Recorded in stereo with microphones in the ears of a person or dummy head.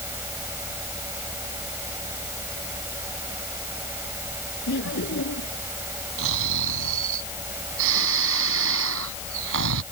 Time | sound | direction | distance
0.0 | a fan | 10° right (ahead or behind) | ?
4.7 | laughter | 60° left (ahead or behind) | ?
6.2 | snoring | 70° right (ahead or behind) | ?